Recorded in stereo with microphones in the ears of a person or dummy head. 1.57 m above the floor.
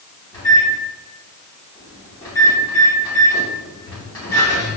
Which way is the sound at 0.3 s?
15° left (ahead or behind).